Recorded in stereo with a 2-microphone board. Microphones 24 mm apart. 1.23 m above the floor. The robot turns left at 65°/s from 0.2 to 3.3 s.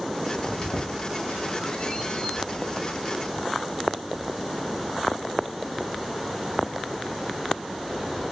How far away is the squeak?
About 1.1 m.